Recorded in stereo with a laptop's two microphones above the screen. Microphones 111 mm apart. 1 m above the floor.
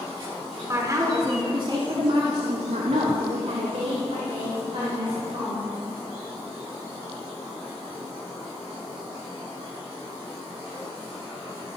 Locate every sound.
0.7 s a woman speaking: 25° right (ahead or behind), 3 m; by 5.6 s 40° right (ahead or behind), 4.5 m